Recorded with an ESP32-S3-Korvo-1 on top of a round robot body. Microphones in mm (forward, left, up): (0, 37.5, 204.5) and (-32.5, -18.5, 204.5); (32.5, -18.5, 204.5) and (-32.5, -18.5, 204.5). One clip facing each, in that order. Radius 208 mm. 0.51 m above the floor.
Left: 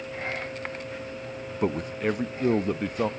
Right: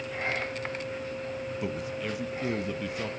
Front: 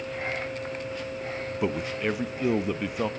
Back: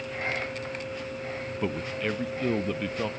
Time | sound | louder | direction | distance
1.6 | a man speaking | left 10 dB, front 3 dB | 75° left | 0.8 m